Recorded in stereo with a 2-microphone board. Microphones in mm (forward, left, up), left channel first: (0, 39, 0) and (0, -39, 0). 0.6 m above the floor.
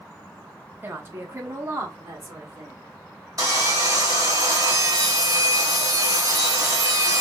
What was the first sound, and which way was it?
A woman speaking, 30° right (ahead or behind).